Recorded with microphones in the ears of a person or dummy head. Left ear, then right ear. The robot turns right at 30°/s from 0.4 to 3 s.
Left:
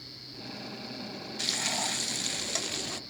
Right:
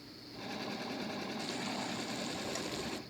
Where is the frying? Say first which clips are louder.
Left 13 dB; 95° left; by 3.0 s 145° left.